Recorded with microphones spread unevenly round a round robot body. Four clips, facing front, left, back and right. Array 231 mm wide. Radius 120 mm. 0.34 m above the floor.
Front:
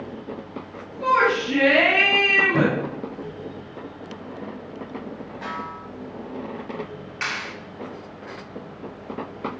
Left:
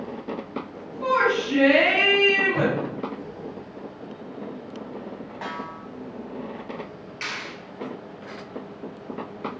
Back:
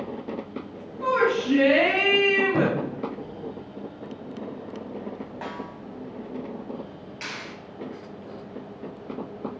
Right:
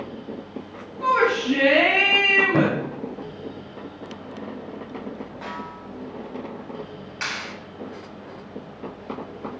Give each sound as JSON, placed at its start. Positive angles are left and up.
{"t": 1.0, "sound": "a shout", "azimuth_deg": -125, "distance_m": 3.5}
{"t": 2.5, "sound": "a thud", "azimuth_deg": -85, "distance_m": 1.7}
{"t": 5.4, "sound": "a snare drum", "azimuth_deg": 155, "distance_m": 1.4}
{"t": 7.2, "sound": "a clap", "azimuth_deg": -40, "distance_m": 1.7}